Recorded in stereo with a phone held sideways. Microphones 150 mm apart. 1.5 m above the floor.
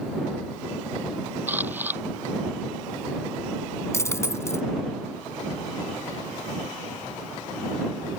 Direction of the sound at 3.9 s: 20° left (ahead or behind).